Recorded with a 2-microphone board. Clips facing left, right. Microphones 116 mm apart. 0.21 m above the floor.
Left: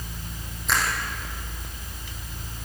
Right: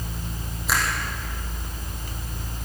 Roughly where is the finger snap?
Centre.